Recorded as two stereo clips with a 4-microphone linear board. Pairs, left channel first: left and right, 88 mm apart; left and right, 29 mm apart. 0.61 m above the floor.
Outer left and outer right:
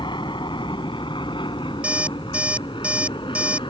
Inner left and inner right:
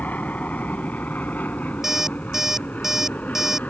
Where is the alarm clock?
15° right (ahead or behind).